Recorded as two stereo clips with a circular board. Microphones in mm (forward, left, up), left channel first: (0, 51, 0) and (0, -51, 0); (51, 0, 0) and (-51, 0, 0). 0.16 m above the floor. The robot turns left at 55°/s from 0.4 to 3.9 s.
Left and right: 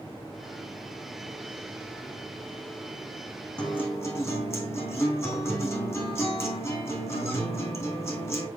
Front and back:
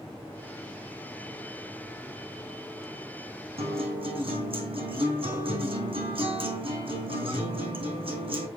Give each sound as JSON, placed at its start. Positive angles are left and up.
{"t": 3.6, "sound": "a guitar", "azimuth_deg": 175, "distance_m": 3.5}